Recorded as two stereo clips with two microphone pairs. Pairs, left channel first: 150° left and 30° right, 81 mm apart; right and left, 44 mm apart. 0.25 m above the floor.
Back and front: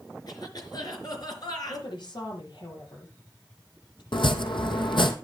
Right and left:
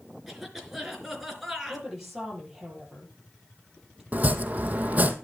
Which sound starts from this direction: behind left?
Chopping, at 4.1 s.